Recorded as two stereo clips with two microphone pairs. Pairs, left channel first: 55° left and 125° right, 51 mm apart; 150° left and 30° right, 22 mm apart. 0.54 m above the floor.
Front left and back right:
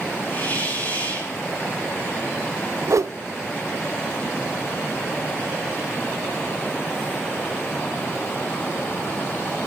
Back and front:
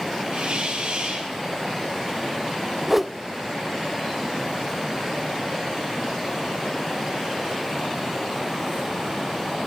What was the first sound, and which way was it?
A hiss, 5° right.